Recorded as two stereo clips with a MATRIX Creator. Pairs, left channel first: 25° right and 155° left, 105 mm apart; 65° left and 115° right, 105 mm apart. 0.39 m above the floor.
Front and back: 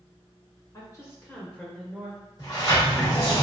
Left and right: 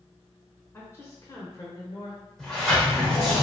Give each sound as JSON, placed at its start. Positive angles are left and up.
{"t": 0.7, "sound": "a woman speaking", "azimuth_deg": 10, "distance_m": 1.2}
{"t": 2.4, "sound": "a sliding door", "azimuth_deg": -15, "distance_m": 1.1}